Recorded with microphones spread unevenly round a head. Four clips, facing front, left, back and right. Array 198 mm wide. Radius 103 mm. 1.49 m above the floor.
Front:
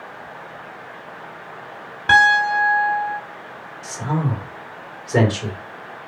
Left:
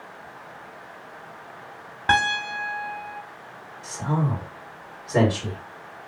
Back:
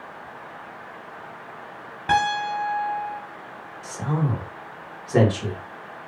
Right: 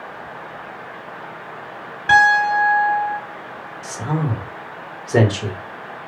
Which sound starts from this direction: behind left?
A piano, at 2.1 s.